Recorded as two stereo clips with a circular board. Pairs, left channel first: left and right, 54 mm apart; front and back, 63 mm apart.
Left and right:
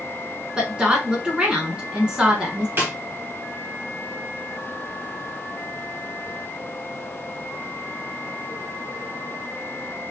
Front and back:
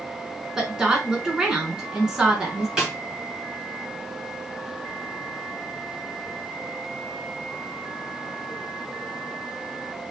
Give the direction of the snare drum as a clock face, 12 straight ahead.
4 o'clock.